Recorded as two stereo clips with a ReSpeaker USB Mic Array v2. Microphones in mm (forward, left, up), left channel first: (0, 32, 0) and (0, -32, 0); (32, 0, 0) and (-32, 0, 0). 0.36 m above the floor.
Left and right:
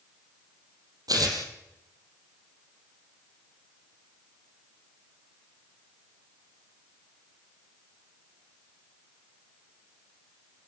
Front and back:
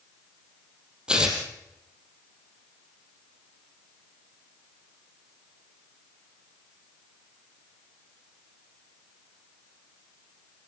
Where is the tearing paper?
105° right, 4 m.